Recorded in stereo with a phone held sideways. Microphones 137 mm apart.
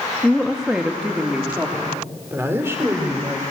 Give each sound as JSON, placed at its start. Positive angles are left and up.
{"t": 0.2, "sound": "a woman speaking", "side_deg": 5, "distance_m": 1.2}